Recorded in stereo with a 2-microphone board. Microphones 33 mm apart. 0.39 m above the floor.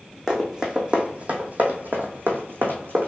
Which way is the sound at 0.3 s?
15° right (ahead or behind).